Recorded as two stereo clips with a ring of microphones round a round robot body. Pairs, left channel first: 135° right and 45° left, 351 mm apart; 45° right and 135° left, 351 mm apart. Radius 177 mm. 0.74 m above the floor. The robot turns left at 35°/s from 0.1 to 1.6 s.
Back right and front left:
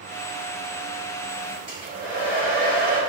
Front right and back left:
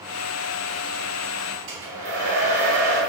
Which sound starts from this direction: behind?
A hair dryer, at 1.7 s.